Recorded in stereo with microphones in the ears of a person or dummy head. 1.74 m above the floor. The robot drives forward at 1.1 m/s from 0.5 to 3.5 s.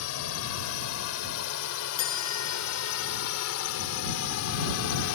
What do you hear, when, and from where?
0.0 s a drone: 80° left
2.0 s a chime: 25° left (ahead or behind); by 3.3 s 15° left (ahead or behind)